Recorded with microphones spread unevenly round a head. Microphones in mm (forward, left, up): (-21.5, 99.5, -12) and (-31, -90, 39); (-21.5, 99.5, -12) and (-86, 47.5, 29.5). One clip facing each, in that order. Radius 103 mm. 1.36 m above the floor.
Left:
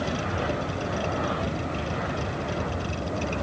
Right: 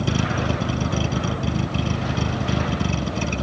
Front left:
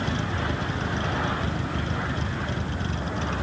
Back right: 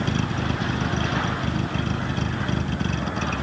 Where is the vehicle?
100° right.